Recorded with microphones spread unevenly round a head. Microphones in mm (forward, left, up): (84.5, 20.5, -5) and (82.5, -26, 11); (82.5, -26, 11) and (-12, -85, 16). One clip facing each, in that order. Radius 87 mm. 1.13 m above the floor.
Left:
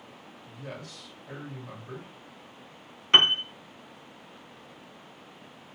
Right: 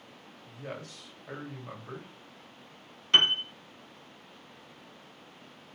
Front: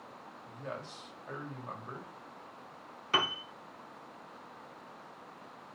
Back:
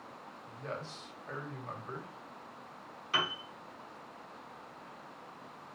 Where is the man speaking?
40° right, 2.5 m.